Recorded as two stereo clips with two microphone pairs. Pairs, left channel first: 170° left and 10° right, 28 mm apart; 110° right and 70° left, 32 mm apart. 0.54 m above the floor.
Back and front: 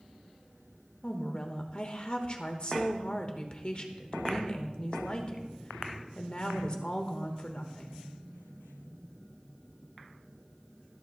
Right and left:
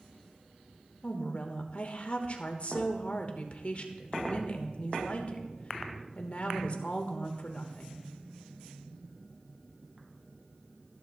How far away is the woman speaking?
About 1.3 m.